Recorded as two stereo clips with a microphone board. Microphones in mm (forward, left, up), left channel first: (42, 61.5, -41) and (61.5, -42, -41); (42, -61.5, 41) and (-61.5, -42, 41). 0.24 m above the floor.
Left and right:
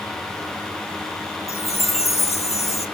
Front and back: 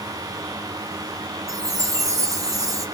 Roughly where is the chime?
Left.